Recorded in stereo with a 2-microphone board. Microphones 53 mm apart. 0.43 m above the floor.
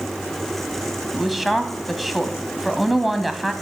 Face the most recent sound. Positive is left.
turn(degrees=-5)  # may be behind; listen again after turning